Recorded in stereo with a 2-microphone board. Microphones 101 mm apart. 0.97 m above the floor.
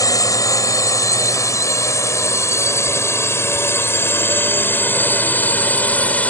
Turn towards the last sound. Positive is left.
turn(degrees=15)  # may be behind; listen again after turning